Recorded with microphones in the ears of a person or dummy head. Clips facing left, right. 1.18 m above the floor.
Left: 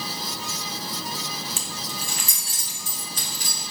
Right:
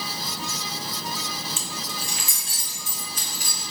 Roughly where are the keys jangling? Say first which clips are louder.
Even; left.